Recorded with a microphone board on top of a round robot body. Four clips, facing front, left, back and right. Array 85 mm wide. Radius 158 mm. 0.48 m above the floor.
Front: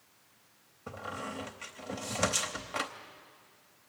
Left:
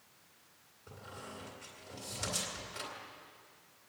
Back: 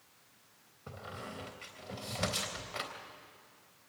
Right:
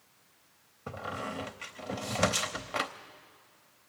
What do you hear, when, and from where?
0.9 s a squeak: 75° right, 0.7 m